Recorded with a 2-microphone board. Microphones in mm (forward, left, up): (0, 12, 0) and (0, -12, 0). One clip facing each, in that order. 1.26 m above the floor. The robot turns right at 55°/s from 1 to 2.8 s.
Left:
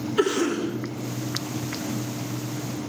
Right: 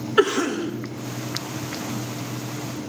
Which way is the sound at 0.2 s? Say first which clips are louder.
Right 3 dB; 75° right (ahead or behind).